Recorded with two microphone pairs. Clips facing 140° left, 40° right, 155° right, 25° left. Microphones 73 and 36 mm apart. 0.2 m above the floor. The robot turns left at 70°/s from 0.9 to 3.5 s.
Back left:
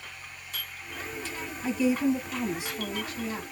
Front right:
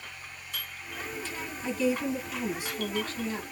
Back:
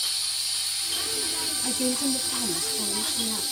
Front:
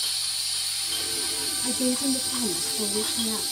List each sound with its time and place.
1.6 s a woman speaking: 175° right, 1.2 m; by 3.4 s 60° left, 1.2 m